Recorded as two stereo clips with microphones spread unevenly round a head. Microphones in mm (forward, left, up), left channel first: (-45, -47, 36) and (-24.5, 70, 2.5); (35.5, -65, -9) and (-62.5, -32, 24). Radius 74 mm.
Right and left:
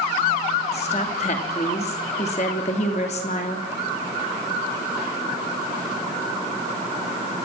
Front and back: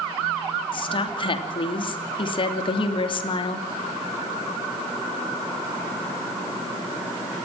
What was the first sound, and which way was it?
A woman speaking, 50° right.